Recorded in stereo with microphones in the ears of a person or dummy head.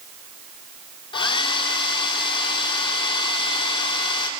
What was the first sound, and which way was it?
A hair dryer, 25° left (ahead or behind).